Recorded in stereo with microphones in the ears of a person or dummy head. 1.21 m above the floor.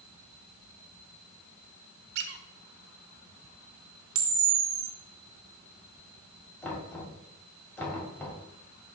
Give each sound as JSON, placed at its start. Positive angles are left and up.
{"t": 2.1, "sound": "a squeak", "side_deg": -60, "distance_m": 0.8}
{"t": 4.2, "sound": "a camera shutter", "side_deg": -70, "distance_m": 1.0}
{"t": 6.6, "sound": "knocking", "side_deg": 15, "distance_m": 2.0}